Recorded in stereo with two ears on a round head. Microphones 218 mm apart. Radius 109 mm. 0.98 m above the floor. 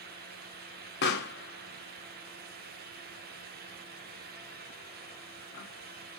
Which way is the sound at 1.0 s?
45° left (ahead or behind).